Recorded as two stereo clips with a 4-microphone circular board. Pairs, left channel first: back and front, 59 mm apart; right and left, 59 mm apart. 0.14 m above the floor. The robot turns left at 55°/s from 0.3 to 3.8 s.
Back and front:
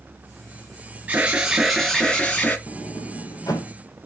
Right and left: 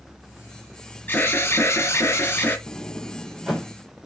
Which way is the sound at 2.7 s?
140° right.